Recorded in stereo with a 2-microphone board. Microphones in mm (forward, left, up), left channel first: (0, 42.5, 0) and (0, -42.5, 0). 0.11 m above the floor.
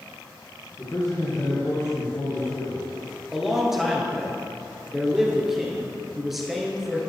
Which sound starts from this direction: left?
A man speaking, at 0.8 s.